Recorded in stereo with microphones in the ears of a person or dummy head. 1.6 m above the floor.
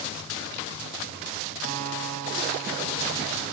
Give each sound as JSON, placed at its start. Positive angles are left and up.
{"t": 1.6, "sound": "a guitar", "side_deg": -45, "distance_m": 1.5}